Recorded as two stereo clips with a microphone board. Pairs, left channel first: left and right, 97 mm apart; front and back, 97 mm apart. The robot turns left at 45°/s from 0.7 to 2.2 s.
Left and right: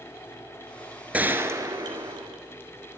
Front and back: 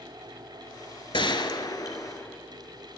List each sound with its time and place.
1.1 s a gunshot: 15° right, 0.7 m; by 2.4 s 65° right, 0.7 m